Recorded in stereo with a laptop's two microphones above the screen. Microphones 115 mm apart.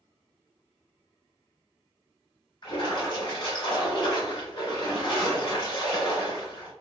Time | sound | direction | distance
2.6 | a splash | 40° left (ahead or behind) | 1.4 m